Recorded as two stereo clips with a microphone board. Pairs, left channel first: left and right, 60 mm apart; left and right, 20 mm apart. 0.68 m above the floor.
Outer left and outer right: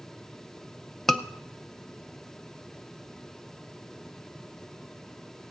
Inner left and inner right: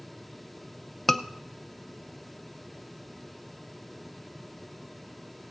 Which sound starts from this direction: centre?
A scream, at 1.1 s.